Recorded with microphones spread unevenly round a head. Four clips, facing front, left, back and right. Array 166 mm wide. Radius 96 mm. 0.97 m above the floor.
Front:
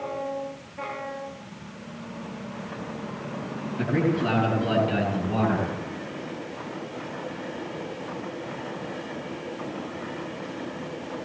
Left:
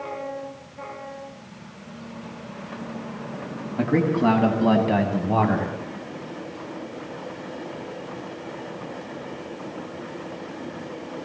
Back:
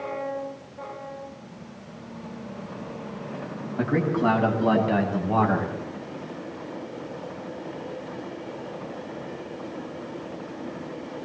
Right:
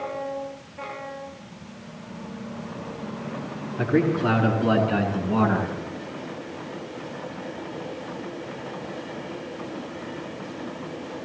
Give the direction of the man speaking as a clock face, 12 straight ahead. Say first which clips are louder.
Left 1 dB, back 1 dB; 8 o'clock.